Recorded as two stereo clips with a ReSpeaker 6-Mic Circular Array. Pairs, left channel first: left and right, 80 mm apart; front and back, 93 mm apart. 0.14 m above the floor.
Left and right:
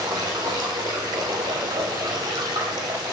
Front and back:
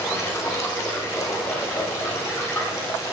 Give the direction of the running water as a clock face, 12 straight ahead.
2 o'clock.